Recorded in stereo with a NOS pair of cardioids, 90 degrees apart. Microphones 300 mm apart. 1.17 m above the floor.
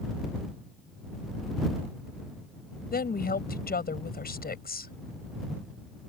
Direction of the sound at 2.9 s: 30° left.